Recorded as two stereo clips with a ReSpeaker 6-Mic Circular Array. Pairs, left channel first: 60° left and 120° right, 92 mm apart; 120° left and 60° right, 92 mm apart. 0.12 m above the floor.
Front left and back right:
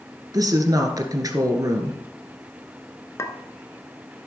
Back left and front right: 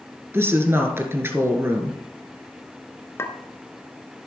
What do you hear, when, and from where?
0.3 s a woman speaking: 110° right, 1.5 m
3.2 s a clink: 85° left, 0.9 m